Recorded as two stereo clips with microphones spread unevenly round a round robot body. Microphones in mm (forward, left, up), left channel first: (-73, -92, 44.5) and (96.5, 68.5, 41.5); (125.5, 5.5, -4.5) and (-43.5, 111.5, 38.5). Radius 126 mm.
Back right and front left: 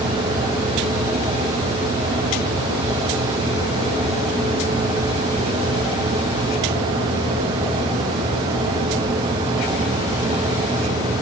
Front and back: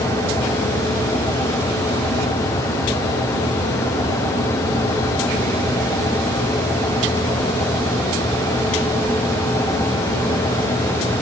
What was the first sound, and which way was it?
Only background noise.